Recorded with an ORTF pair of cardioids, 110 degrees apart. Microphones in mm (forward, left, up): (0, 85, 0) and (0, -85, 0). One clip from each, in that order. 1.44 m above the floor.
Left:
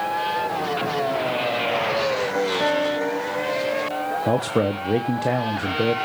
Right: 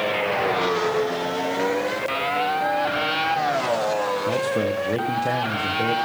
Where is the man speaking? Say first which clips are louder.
Left 1 dB; 40° left, 1.0 m.